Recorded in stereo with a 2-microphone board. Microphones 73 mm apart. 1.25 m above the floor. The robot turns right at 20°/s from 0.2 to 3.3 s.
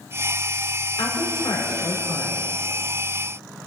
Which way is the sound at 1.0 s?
80° left.